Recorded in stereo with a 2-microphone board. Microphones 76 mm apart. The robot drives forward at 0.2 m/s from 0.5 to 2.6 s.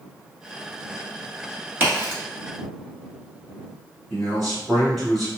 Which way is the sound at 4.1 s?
5° left (ahead or behind).